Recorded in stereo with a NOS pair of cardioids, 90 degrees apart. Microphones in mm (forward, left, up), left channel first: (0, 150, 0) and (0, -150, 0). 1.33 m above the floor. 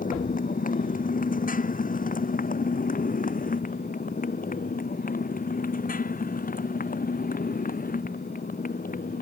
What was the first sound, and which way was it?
A motorcycle, 25° left.